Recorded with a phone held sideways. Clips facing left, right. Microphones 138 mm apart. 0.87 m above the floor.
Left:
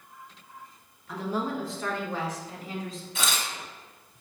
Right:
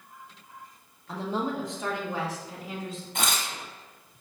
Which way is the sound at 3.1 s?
55° right (ahead or behind).